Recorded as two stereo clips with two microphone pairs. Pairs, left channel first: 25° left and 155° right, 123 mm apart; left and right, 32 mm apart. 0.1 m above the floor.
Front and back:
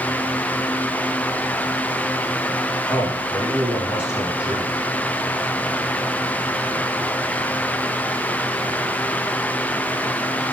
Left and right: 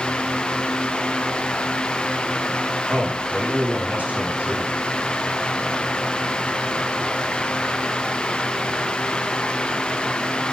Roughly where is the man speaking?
Right.